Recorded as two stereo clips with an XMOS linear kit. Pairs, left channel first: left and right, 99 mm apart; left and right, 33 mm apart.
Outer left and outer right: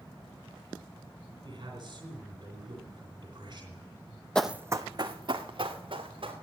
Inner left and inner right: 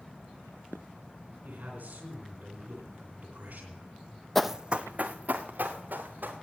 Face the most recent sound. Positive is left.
turn(degrees=-55)  # may be behind; listen again after turning